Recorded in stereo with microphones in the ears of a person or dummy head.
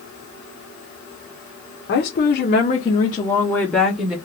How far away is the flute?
No flute in this recording.